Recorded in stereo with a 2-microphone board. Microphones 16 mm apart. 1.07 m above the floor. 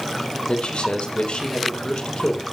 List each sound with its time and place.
0.5 s a man speaking: 80° left, 3.5 m